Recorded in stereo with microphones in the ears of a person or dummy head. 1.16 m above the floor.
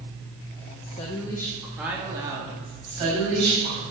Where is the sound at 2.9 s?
40° right (ahead or behind), 6 m.